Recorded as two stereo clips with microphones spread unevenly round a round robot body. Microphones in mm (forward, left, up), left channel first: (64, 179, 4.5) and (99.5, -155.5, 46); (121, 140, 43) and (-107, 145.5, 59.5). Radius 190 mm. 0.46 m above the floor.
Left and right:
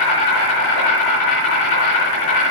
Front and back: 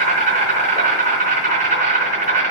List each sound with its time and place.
0.0 s an insect: 125° left, 3.5 m